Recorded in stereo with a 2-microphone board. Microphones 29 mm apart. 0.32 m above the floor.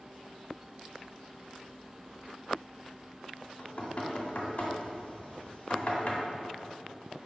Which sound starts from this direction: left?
Knocking, at 3.6 s.